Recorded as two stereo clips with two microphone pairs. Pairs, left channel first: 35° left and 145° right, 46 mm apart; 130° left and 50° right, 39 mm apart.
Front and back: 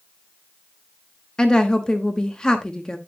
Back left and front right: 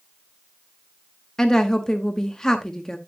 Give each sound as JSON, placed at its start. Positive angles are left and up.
{"t": 1.4, "sound": "a woman speaking", "azimuth_deg": 75, "distance_m": 0.8}